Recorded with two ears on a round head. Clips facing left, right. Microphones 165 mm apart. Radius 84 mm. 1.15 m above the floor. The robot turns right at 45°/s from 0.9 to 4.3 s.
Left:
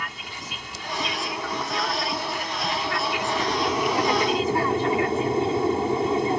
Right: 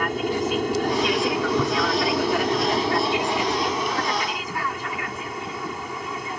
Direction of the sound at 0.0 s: 125° right.